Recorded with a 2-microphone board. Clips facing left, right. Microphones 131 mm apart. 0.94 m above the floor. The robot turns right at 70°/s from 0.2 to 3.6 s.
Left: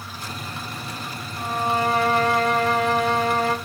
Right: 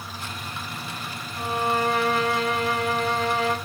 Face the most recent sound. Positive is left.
turn(degrees=150)